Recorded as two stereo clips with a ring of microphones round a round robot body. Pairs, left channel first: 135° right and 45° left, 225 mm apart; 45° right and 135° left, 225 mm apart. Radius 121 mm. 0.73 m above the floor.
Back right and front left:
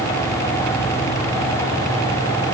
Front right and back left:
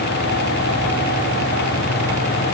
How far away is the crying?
I don't hear crying.